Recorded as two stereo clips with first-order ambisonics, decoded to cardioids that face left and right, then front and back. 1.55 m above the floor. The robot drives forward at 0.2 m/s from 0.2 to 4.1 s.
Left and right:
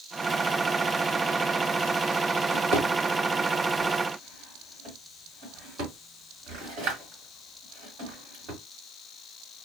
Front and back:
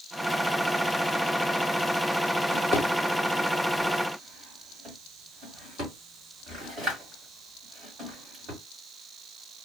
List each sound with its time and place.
2.5 s a drawer: 120° right, 2 m; by 8.6 s 125° right, 2.5 m